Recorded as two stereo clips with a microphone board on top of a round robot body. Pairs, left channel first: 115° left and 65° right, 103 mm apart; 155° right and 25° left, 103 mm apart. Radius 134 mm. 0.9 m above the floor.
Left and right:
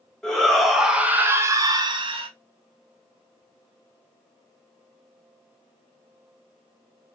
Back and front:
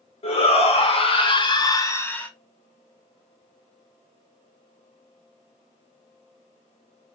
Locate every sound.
0.2 s a shout: 165° right, 1.3 m; by 2.3 s 80° right, 0.8 m